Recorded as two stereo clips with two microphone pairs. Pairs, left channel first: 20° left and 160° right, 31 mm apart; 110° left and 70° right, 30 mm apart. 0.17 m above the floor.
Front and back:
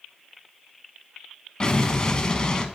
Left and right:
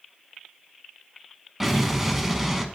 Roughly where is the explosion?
Ahead.